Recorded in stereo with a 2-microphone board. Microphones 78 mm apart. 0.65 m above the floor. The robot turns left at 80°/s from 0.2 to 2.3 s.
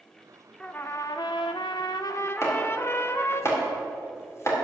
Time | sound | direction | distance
0.6 | a trumpet | 170° left | 0.5 m
2.4 | chopping | 35° left (ahead or behind) | 2.0 m